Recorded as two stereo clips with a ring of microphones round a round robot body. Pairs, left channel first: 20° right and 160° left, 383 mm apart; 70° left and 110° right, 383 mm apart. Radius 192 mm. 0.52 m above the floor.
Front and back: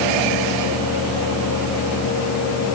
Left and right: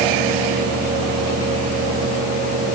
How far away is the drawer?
No drawer in this recording.